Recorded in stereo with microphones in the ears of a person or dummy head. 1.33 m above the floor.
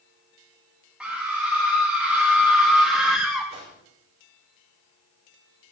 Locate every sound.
1.0 s a scream: centre (ahead or behind), 2.5 m; by 3.5 s 5° left (ahead or behind), 0.9 m
3.5 s a whoosh: 25° right (ahead or behind), 5 m